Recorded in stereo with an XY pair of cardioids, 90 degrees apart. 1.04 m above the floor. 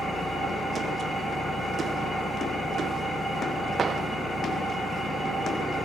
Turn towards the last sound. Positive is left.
turn(degrees=40)